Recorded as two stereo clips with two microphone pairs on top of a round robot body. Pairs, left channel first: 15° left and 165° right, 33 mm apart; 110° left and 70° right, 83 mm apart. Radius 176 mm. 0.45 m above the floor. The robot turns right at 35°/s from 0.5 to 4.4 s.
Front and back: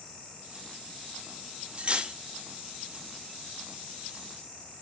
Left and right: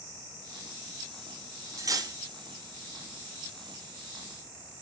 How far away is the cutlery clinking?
About 0.7 m.